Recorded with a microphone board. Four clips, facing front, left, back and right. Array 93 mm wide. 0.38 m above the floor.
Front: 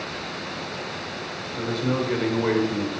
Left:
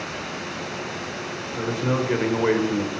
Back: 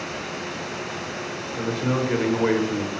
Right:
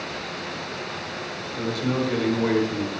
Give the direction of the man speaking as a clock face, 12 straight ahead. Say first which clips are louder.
Left 1 dB, even; 8 o'clock.